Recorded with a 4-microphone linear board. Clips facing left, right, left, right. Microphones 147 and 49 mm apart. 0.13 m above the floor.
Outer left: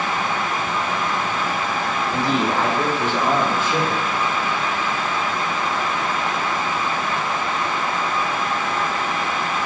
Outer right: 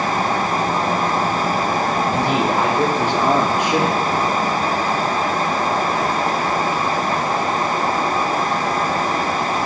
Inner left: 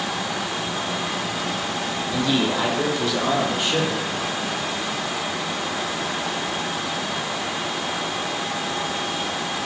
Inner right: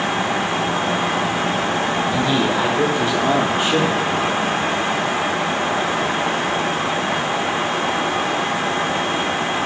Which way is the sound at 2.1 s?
15° right (ahead or behind).